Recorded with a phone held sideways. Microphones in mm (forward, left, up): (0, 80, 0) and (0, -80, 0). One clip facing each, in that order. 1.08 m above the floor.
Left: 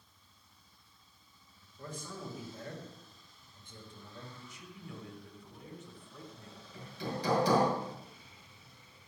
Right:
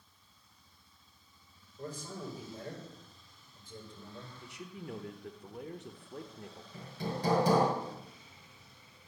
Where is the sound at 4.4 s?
70° right (ahead or behind), 1.3 m.